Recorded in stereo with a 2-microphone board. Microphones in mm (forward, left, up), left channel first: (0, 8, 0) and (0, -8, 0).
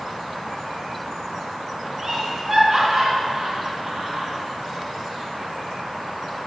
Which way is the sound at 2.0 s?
25° right (ahead or behind).